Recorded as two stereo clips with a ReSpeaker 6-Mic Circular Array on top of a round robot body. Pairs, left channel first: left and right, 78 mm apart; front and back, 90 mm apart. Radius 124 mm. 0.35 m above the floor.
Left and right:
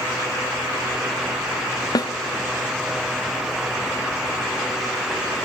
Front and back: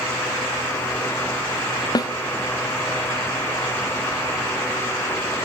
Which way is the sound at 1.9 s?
50° left.